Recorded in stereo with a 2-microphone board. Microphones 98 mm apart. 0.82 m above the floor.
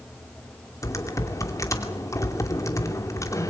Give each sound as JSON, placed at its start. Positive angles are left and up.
{"t": 0.8, "sound": "typing on a keyboard", "side_deg": 30, "distance_m": 2.5}